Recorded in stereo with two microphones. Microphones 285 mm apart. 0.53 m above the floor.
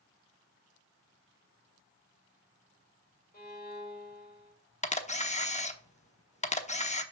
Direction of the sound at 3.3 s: 30° left (ahead or behind).